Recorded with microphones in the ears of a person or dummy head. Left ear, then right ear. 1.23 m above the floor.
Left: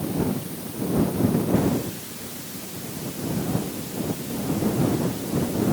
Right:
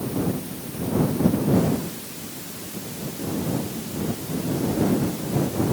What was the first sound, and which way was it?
Only background noise.